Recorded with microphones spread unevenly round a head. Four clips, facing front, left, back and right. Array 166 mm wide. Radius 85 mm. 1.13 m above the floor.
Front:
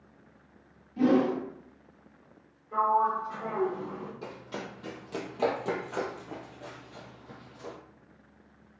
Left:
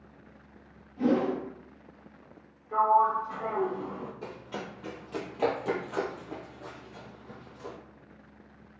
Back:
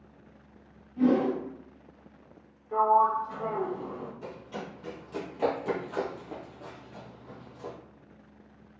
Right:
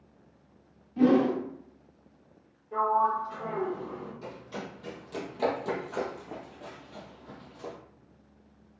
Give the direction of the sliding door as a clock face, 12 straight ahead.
7 o'clock.